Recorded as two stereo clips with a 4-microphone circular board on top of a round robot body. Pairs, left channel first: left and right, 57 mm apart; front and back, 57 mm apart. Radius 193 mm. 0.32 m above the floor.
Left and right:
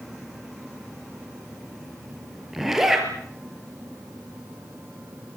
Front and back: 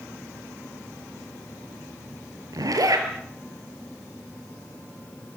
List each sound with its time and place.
2.5 s a zipper: 175° right, 6 m